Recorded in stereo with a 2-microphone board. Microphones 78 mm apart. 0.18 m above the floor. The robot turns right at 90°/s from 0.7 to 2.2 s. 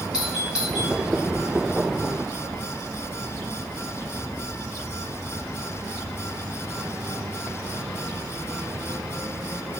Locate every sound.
0.1 s a doorbell: 10° right (ahead or behind), 2.5 m; by 0.9 s centre (ahead or behind), 2.5 m